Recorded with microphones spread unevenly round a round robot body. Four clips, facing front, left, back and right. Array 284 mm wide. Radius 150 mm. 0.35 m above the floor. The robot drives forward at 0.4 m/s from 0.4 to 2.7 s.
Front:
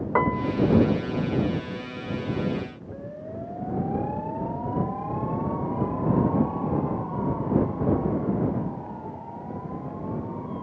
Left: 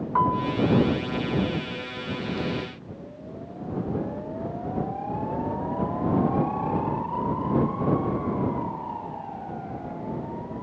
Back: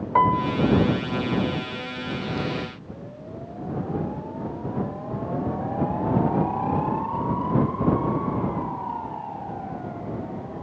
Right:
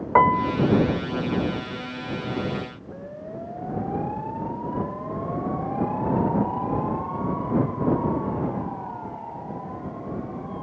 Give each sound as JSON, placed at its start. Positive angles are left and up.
{"t": 0.1, "sound": "a piano", "azimuth_deg": -70}